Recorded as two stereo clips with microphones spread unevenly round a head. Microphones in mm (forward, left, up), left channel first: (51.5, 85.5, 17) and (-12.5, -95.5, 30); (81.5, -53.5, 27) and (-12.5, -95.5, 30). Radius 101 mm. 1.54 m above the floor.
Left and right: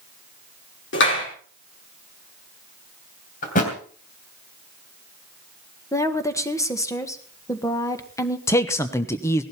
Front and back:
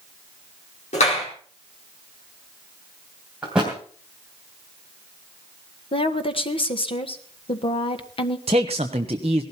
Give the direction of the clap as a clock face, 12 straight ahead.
10 o'clock.